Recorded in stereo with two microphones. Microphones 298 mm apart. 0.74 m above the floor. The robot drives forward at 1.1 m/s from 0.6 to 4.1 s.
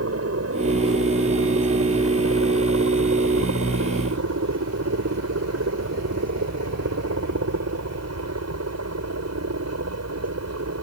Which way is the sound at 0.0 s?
50° right (ahead or behind).